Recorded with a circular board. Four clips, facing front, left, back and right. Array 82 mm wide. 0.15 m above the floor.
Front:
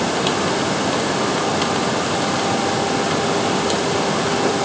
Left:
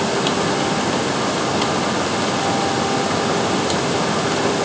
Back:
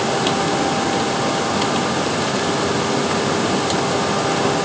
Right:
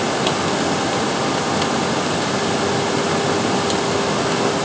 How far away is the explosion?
No explosion in this recording.